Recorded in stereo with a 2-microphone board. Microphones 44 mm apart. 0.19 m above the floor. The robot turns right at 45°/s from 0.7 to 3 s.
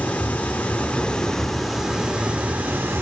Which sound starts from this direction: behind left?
Running water, at 0.0 s.